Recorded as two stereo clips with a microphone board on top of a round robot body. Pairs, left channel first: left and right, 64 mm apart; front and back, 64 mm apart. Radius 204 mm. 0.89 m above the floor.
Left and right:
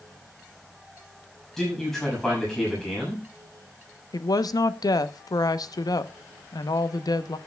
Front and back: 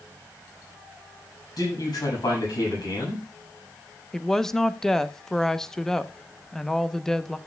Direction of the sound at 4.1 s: 80° left.